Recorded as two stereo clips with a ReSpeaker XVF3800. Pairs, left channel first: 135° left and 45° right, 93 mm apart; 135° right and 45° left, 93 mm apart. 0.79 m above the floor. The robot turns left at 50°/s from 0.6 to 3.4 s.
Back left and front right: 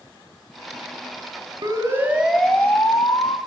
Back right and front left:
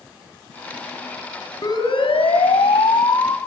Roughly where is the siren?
Right.